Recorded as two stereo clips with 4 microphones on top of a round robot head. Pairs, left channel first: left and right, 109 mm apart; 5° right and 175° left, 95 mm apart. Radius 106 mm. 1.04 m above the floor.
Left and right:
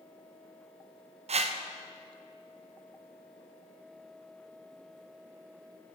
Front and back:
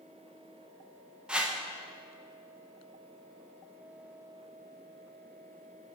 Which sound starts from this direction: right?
A whoosh, at 1.3 s.